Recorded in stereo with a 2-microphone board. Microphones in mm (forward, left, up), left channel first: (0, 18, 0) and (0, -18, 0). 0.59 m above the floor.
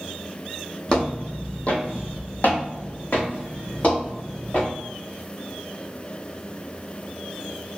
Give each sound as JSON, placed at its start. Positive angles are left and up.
{"t": 0.9, "sound": "footsteps", "side_deg": 30, "distance_m": 0.9}